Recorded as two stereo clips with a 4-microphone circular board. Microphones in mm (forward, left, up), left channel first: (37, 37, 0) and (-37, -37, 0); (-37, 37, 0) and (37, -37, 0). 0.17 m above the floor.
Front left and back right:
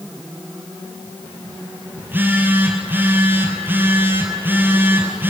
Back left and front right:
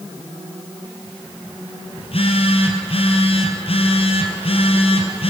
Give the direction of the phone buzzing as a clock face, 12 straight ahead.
7 o'clock.